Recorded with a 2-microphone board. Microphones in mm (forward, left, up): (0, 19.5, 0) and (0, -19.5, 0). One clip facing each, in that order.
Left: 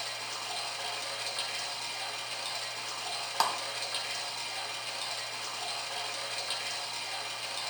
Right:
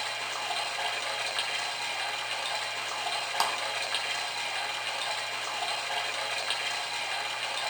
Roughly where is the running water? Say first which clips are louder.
Right 5 dB; right.